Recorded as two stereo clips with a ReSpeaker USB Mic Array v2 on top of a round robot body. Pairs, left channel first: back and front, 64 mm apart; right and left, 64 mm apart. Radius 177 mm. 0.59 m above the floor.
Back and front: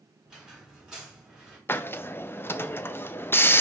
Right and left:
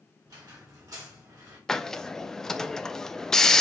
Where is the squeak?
80° left, 1.9 m.